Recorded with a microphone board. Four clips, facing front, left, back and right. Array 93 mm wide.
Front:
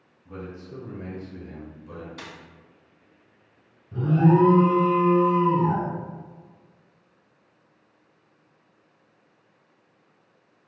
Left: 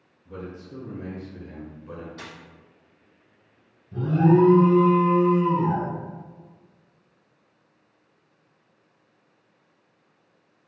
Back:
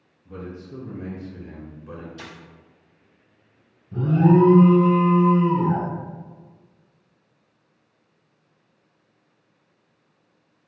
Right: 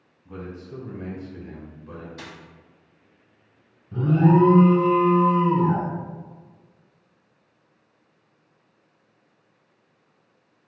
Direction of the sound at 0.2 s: 55° right.